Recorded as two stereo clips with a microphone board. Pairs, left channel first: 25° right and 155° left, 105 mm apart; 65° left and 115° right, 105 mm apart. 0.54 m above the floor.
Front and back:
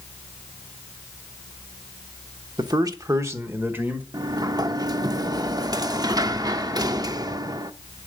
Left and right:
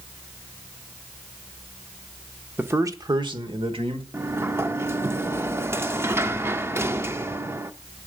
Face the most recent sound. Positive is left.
turn(degrees=-170)